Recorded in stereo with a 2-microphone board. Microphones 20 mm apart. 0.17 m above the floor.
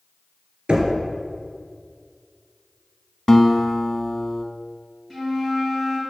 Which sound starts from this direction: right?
Knocking, at 0.7 s.